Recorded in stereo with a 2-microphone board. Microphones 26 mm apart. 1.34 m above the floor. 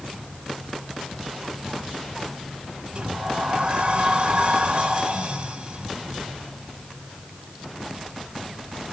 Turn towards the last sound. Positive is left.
turn(degrees=-45)  # may be behind; listen again after turning